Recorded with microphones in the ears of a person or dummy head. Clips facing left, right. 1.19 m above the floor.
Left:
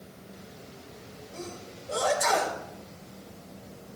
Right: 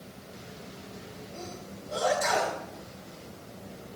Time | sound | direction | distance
1.3 | a sneeze | 75° left (ahead or behind) | 4 m